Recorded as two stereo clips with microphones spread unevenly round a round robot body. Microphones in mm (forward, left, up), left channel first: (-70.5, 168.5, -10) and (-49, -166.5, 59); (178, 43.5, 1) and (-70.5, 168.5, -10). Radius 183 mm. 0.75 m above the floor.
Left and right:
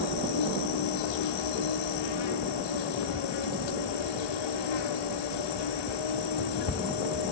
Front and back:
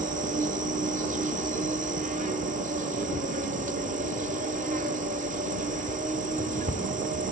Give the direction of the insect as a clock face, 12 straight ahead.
9 o'clock.